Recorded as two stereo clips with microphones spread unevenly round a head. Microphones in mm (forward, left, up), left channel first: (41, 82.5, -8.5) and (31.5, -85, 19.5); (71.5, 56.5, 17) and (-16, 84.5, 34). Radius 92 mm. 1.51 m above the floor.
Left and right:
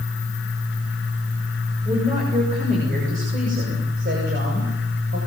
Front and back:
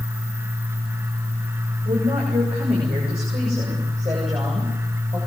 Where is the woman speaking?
155° right, 7 m; by 5.2 s 130° right, 8 m.